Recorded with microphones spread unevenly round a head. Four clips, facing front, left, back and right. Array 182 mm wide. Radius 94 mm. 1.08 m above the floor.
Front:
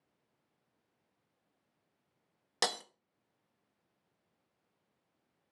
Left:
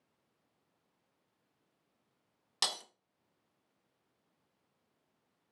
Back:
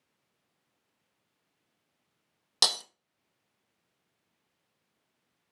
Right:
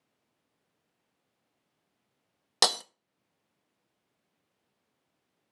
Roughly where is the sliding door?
No sliding door in this recording.